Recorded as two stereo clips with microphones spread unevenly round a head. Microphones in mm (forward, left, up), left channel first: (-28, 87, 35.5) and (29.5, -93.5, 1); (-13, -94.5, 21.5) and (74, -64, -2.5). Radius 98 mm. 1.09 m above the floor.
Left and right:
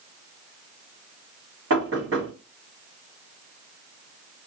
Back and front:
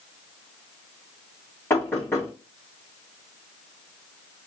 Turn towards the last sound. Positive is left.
turn(degrees=-95)